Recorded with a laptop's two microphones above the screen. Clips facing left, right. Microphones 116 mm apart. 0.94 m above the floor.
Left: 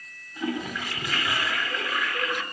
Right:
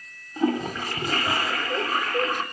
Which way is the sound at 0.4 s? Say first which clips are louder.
Right 6 dB; 40° right (ahead or behind).